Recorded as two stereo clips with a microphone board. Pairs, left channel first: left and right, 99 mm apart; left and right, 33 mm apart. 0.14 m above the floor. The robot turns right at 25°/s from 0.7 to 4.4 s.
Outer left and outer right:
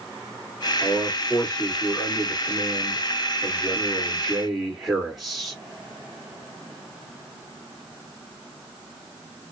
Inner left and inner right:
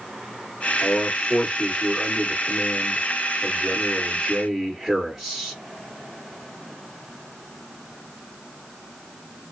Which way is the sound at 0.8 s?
90° left.